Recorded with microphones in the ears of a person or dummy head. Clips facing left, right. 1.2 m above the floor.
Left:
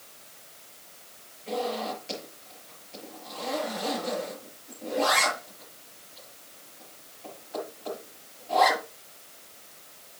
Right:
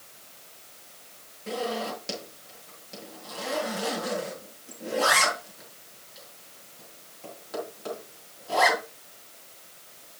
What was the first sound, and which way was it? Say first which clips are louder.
A zipper: even; 80° right.